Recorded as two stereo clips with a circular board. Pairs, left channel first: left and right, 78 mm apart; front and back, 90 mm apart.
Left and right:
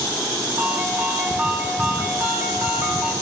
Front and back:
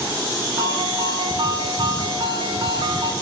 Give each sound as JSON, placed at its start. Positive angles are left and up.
{"t": 0.6, "sound": "a ringtone", "azimuth_deg": -140, "distance_m": 10.0}